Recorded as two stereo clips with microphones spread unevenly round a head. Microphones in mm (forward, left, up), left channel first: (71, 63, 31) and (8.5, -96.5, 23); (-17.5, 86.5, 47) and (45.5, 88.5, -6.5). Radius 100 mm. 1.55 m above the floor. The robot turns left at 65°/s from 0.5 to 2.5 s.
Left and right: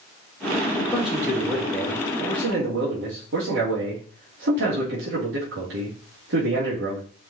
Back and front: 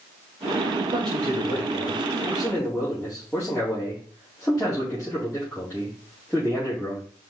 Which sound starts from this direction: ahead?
A man speaking, at 0.8 s.